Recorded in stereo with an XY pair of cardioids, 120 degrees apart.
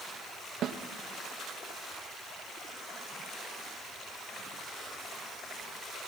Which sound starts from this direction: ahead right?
A snare drum, at 0.6 s.